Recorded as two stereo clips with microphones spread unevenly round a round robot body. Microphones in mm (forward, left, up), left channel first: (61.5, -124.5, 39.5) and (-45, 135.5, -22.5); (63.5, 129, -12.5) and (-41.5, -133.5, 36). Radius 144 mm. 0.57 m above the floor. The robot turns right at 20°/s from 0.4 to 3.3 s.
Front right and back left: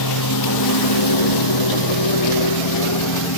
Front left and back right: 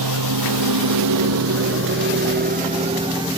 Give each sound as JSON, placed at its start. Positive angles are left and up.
{"t": 0.0, "sound": "a lawn mower", "azimuth_deg": -95}